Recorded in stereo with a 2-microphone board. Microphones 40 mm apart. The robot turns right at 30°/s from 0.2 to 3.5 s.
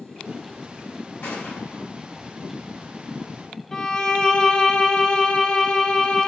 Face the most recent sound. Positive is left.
turn(degrees=15)  # may be behind; listen again after turning